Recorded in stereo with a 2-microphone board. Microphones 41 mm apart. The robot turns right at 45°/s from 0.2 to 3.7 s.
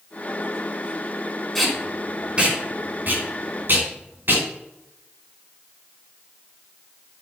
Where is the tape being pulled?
5° left (ahead or behind), 3 m; by 4.4 s 60° right (ahead or behind), 3 m.